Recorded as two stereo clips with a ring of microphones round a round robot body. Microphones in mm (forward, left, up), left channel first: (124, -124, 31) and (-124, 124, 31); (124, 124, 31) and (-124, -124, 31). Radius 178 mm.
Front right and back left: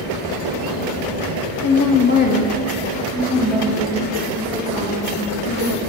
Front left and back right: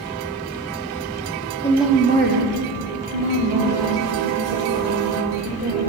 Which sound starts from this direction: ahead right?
A woman speaking, at 1.6 s.